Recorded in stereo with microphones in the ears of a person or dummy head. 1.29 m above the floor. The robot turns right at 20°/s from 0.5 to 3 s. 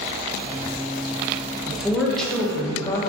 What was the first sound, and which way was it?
A woman speaking, 5° right (ahead or behind).